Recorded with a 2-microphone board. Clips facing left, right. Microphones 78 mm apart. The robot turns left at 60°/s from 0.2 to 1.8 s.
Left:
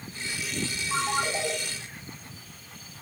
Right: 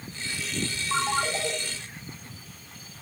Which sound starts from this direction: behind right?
A ringtone, at 0.9 s.